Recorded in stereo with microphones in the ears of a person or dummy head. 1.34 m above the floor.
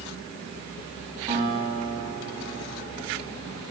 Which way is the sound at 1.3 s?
20° right (ahead or behind).